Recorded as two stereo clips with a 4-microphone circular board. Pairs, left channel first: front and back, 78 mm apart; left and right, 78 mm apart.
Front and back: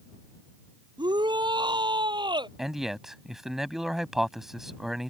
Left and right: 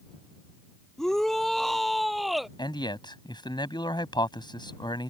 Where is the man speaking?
95° left.